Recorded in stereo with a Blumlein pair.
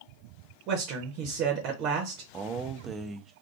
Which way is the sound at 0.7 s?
40° right.